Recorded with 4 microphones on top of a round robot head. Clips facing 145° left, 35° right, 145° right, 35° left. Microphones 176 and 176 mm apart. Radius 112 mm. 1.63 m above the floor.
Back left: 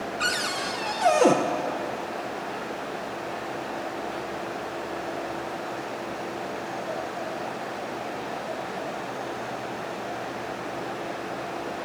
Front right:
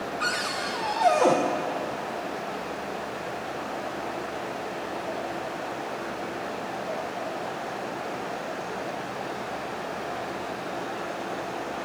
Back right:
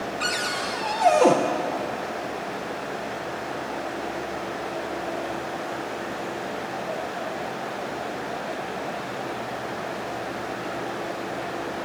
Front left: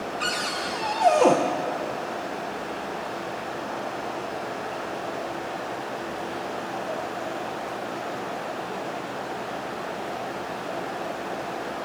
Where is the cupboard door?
140° left, 0.7 m.